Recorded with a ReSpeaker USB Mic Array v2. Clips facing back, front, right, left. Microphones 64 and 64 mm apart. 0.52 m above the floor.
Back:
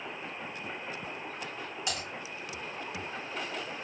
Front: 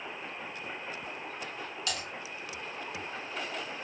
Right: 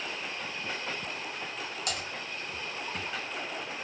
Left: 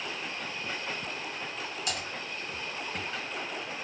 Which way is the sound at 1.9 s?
110° right.